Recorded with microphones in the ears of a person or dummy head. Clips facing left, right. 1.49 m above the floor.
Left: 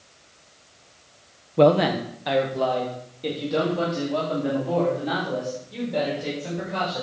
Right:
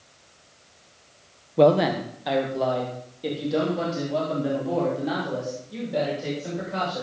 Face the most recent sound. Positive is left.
turn(degrees=-5)  # may be behind; listen again after turning